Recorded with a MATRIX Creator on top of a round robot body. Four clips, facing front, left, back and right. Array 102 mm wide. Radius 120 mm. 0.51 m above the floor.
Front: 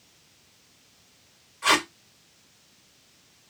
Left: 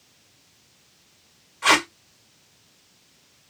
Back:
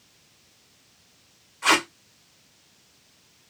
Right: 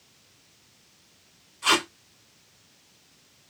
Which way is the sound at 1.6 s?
105° left.